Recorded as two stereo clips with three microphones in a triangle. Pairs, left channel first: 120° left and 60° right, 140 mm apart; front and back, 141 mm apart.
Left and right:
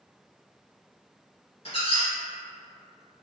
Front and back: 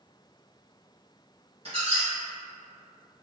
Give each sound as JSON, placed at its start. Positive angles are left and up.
{"t": 1.6, "sound": "a squeak", "azimuth_deg": 150, "distance_m": 1.4}